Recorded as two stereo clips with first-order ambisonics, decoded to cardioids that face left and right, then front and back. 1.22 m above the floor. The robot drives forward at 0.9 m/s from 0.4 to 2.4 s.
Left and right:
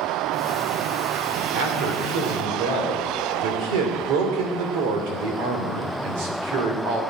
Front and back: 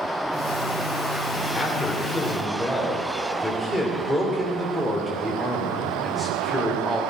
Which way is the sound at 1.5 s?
70° right.